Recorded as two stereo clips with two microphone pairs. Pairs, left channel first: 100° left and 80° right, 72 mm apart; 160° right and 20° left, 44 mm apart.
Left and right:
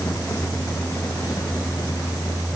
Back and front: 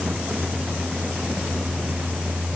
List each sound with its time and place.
Only background noise.